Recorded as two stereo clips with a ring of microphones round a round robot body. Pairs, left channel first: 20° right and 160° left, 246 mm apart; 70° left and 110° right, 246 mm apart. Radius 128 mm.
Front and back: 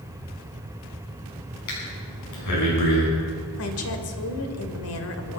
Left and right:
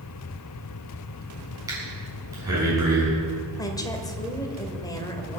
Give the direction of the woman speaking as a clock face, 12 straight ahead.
12 o'clock.